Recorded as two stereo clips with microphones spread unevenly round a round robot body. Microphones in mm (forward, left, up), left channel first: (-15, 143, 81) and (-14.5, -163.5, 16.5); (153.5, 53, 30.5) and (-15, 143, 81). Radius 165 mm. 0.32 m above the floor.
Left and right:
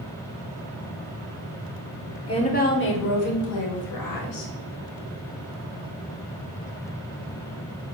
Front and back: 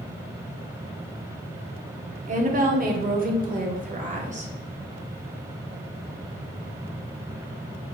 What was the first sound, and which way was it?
A woman speaking, 170° left.